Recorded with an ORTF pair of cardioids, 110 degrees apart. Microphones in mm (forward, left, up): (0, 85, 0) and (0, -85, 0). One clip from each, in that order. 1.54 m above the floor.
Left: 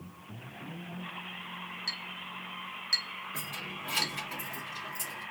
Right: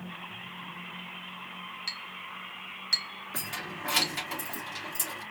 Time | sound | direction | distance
1.9 | a clink | 20° right | 2.0 m
3.3 | keys jangling | 55° right | 2.5 m